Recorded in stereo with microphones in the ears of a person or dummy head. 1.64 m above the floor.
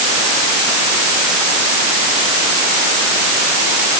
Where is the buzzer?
I don't hear a buzzer.